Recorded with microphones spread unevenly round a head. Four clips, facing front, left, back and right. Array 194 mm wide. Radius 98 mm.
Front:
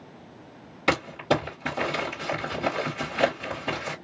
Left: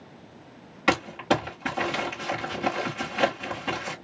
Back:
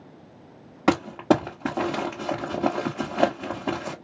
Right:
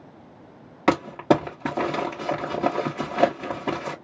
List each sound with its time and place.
0.9 s crumpling: 145° right, 1.5 m